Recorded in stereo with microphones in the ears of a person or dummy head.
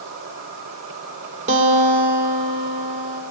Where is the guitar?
35° right (ahead or behind), 3 m.